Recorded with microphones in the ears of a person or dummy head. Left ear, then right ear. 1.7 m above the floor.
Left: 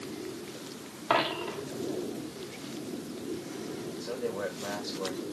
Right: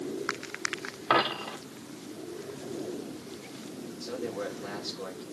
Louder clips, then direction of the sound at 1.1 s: Right 2 dB; 20° right (ahead or behind).